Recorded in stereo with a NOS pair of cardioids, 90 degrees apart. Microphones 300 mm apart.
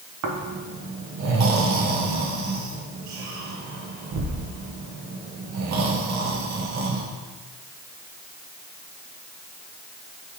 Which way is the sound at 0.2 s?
65° right.